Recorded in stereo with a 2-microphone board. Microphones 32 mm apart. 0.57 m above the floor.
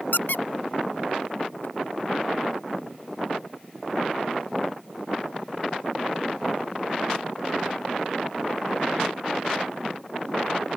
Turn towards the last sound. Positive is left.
turn(degrees=85)